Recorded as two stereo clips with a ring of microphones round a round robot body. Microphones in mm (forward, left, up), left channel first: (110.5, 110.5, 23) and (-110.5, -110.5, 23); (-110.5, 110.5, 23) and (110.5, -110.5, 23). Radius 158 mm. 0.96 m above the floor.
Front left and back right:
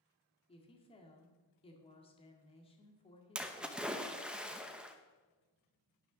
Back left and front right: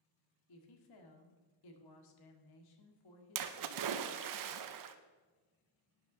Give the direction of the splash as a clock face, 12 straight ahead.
2 o'clock.